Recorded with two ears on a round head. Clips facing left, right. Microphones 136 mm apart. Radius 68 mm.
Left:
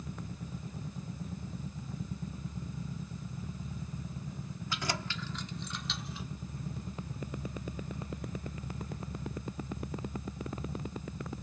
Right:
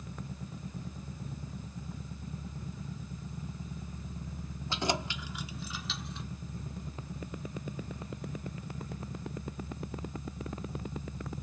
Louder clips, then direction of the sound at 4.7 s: Right 5 dB; 25° right (ahead or behind).